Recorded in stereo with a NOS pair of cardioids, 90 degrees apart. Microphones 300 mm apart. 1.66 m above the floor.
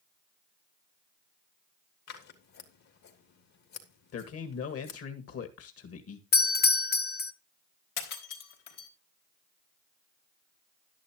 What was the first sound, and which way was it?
Scissors, 70° left.